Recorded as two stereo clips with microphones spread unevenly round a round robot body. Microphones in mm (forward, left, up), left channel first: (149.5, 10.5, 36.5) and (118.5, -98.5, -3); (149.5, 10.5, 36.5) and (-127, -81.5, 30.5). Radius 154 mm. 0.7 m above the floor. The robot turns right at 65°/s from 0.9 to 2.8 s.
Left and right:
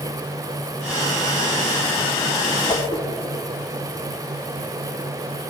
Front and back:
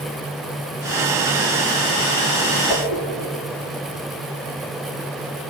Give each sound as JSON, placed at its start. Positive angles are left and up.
{"t": 2.7, "sound": "a whoosh", "azimuth_deg": 25, "distance_m": 1.3}